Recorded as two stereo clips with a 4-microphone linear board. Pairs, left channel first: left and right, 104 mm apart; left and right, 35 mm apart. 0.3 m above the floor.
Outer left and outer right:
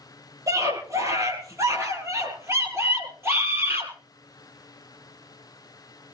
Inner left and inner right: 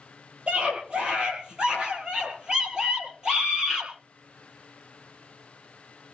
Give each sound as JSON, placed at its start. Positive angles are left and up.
{"t": 0.5, "sound": "a scream", "side_deg": -35, "distance_m": 8.5}